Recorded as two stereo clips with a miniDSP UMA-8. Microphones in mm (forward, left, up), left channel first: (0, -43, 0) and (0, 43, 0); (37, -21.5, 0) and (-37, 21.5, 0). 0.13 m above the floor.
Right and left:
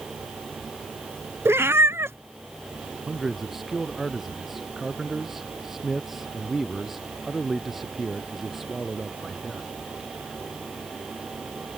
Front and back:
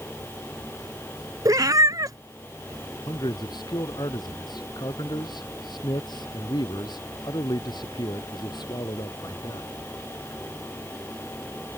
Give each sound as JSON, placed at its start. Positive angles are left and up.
{"t": 1.4, "sound": "a cat meowing", "azimuth_deg": 140}
{"t": 3.1, "sound": "a man speaking", "azimuth_deg": 0}